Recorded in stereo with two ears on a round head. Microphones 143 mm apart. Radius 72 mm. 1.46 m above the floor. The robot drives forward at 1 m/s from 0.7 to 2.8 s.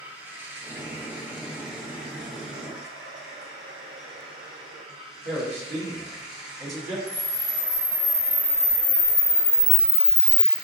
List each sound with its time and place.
0.0 s running water: 15° right (ahead or behind), 1.5 m; by 10.6 s 5° right (ahead or behind), 3 m
5.2 s a man speaking: 40° right (ahead or behind), 1.9 m
7.1 s a camera shutter: 15° left (ahead or behind), 1.4 m